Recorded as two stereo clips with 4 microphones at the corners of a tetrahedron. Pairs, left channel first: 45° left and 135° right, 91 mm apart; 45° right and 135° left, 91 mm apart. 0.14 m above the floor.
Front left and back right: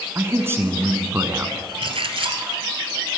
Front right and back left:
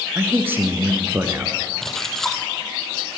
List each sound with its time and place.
0.1 s a man speaking: 175° right, 1.3 m
1.8 s a splash: 130° right, 1.2 m